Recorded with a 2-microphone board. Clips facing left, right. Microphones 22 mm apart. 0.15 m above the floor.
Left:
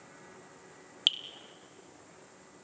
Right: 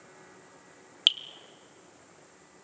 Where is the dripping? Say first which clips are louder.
Right 4 dB; 15° right (ahead or behind), 0.8 m.